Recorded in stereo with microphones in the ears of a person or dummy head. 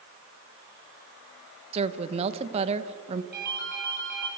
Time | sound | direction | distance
1.7 | a woman speaking | 35° right (ahead or behind) | 1.3 m
3.3 | a ringtone | 50° right (ahead or behind) | 5.5 m